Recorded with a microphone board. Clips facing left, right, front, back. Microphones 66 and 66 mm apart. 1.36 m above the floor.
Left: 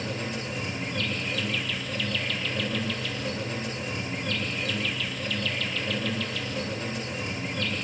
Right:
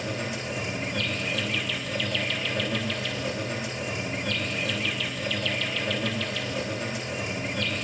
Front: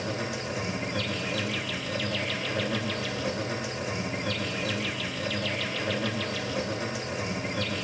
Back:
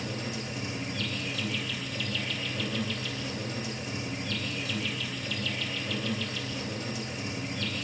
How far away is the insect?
About 9 m.